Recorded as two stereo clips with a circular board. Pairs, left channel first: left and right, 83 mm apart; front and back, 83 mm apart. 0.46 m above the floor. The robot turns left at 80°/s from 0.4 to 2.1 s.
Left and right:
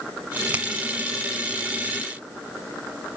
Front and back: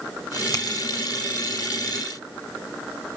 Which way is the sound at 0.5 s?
20° right.